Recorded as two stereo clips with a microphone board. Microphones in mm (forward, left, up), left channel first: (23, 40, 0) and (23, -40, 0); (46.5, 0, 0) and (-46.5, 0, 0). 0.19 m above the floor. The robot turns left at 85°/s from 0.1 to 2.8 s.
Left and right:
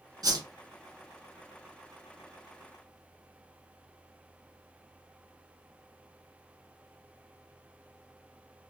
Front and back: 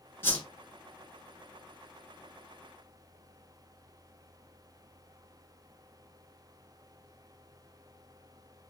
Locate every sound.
0.2 s a whoosh: 60° right, 0.9 m; by 0.5 s 80° right, 0.9 m